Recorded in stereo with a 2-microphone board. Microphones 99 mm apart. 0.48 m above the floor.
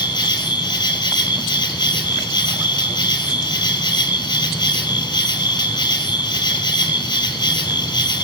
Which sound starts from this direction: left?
An insect, at 0.0 s.